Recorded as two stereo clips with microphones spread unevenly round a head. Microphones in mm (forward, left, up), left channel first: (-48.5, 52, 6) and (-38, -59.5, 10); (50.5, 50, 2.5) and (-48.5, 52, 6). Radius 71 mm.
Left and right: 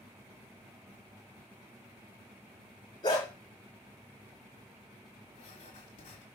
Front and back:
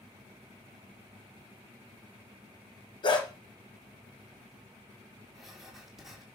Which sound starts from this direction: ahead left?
A dog barking, at 3.0 s.